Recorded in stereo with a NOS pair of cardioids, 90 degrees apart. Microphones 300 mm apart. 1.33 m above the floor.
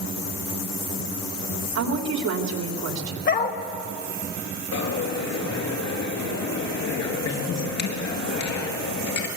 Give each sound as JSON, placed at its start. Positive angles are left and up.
{"t": 1.8, "sound": "a woman speaking", "azimuth_deg": -60, "distance_m": 3.5}
{"t": 3.3, "sound": "a dog barking", "azimuth_deg": 35, "distance_m": 2.5}
{"t": 4.7, "sound": "a dropped coin", "azimuth_deg": 65, "distance_m": 5.0}